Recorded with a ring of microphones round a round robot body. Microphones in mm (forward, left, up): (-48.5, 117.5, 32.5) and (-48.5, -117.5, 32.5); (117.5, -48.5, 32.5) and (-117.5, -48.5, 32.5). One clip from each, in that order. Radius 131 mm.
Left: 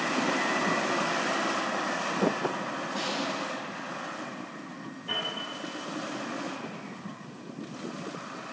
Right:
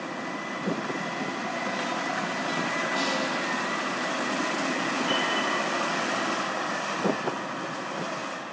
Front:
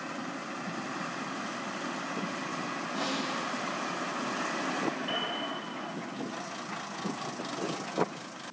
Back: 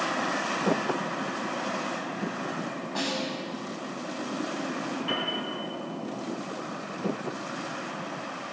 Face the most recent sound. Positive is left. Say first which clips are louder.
# right 2 dB, back 7 dB
turn(degrees=-105)